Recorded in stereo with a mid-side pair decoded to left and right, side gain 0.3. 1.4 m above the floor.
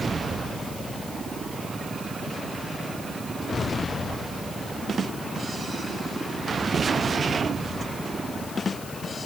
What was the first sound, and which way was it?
Only background noise.